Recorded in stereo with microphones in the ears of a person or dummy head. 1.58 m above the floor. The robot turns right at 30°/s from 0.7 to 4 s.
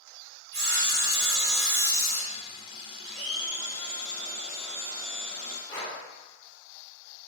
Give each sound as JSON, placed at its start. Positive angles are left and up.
{"t": 0.5, "sound": "sawing", "azimuth_deg": -60, "distance_m": 1.7}
{"t": 3.0, "sound": "a blender", "side_deg": 0, "distance_m": 1.7}
{"t": 5.7, "sound": "breathing", "side_deg": 25, "distance_m": 1.2}